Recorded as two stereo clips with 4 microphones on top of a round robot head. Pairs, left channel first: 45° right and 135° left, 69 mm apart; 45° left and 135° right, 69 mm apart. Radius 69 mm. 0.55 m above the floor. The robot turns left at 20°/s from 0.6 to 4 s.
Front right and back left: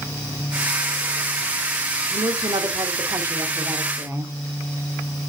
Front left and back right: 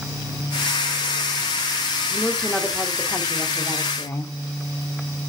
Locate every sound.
2.1 s a woman speaking: 135° left, 1.5 m; by 4.3 s 95° left, 1.5 m